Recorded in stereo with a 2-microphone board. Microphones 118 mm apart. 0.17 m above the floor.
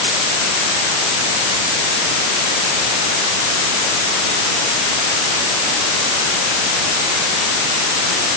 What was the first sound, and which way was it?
Only background noise.